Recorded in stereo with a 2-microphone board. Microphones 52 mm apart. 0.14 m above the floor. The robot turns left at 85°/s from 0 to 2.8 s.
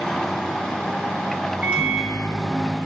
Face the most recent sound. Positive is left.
turn(degrees=-10)  # may be behind; listen again after turning